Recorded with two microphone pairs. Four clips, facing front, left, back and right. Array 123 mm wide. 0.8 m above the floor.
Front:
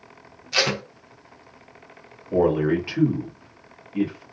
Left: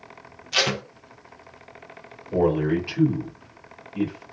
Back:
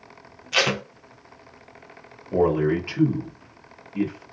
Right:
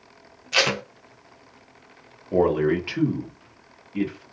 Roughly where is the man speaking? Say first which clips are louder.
Right 1 dB, front 1 dB; ahead right.